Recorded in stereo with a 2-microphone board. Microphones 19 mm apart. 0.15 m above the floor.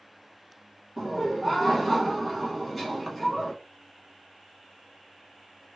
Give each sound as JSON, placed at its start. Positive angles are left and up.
{"t": 1.0, "sound": "laughter", "side_deg": 0, "distance_m": 1.0}